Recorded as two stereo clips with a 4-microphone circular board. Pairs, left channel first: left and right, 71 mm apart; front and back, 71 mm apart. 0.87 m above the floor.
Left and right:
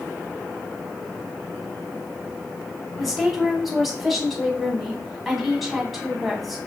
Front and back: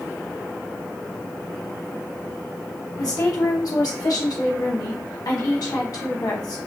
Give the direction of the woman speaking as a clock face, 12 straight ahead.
12 o'clock.